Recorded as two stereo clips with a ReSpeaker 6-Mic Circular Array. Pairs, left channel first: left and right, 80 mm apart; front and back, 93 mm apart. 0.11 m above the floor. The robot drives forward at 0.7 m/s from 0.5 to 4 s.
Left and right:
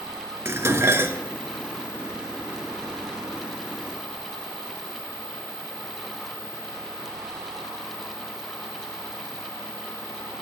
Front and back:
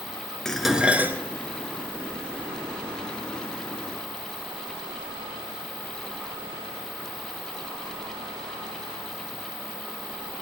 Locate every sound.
0.5 s dishes clattering: 80° right, 0.9 m; by 1.2 s 130° right, 0.9 m